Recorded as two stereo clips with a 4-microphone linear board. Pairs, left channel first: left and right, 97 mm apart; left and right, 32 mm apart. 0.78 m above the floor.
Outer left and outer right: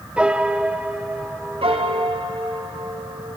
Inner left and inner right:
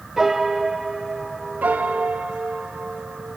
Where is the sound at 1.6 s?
70° right (ahead or behind), 1.2 m.